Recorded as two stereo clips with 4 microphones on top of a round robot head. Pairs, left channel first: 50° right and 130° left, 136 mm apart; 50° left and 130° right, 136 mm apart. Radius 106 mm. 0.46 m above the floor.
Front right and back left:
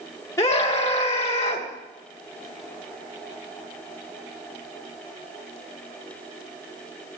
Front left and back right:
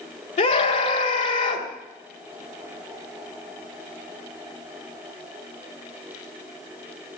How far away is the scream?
About 2.5 m.